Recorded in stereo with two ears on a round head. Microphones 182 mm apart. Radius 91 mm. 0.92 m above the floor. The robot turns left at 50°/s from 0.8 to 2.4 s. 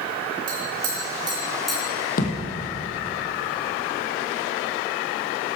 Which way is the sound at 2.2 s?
45° left (ahead or behind).